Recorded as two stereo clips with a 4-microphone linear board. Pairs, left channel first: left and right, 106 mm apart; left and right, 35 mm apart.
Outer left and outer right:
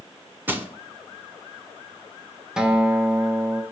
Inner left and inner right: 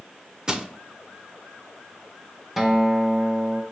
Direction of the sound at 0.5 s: 20° right (ahead or behind).